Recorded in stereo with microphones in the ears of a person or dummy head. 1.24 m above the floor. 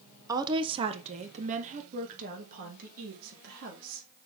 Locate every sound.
0.3 s a woman speaking: 15° right (ahead or behind), 0.8 m; by 4.1 s 50° right (ahead or behind), 3.5 m